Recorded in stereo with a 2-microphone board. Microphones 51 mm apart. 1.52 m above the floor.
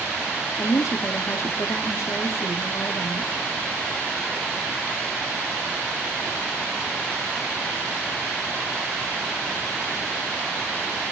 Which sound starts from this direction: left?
A woman speaking, at 0.6 s.